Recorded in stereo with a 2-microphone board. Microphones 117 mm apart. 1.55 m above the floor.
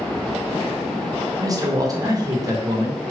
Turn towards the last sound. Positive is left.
turn(degrees=-30)  # may be behind; listen again after turning